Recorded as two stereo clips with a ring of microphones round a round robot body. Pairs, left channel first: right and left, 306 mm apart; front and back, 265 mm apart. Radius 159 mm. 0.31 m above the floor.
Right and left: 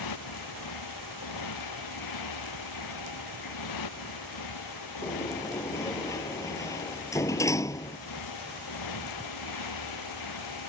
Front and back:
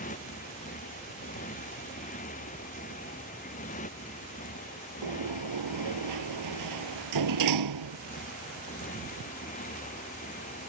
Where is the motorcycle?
65° right.